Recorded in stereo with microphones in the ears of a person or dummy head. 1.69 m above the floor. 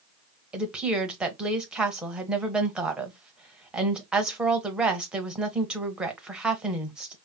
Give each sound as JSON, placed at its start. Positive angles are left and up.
{"t": 0.5, "sound": "a woman speaking", "side_deg": -5, "distance_m": 0.7}